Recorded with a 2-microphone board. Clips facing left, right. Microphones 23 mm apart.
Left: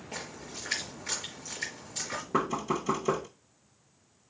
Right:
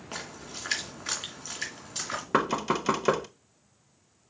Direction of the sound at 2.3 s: 70° right (ahead or behind).